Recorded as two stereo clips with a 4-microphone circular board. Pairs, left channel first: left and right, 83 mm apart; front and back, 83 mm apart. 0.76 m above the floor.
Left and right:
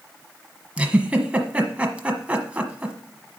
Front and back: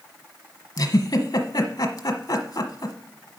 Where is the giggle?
20° right, 1.2 m.